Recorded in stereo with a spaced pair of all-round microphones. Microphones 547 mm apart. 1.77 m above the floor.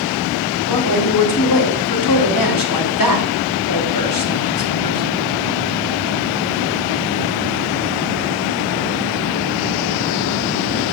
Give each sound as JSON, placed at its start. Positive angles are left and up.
{"t": 0.7, "sound": "a woman speaking", "side_deg": 40, "distance_m": 1.1}